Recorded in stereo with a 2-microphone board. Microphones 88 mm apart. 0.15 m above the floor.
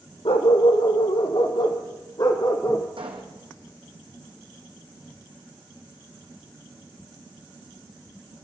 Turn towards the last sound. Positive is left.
turn(degrees=-80)